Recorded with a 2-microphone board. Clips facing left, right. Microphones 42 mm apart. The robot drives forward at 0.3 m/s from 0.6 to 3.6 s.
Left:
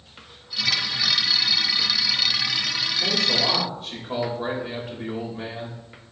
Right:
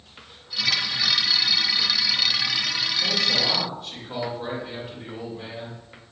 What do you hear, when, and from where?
3.0 s a man speaking: 55° left (ahead or behind), 2.5 m; by 5.8 s 60° left (ahead or behind), 2.5 m